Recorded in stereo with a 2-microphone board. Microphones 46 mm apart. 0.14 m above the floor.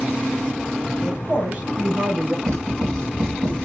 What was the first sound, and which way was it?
A woman speaking, 30° right (ahead or behind).